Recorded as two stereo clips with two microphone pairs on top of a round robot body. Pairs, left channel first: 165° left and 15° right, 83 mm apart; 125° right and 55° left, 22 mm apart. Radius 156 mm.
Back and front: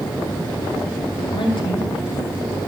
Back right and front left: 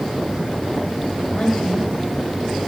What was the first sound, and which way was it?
A woman speaking, straight behind.